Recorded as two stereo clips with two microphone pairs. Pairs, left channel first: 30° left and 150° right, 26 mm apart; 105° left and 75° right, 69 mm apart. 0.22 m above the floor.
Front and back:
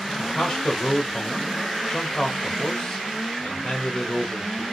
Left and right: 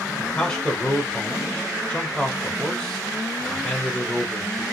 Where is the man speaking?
60° left, 1.0 m.